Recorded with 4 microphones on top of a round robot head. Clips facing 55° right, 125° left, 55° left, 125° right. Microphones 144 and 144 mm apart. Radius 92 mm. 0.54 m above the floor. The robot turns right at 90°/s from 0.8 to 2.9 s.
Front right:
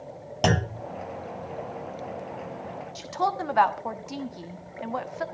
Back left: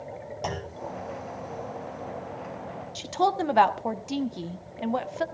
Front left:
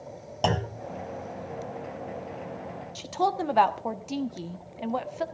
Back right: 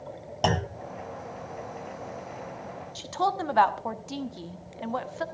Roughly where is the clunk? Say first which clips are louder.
Front right 10 dB, even; ahead right.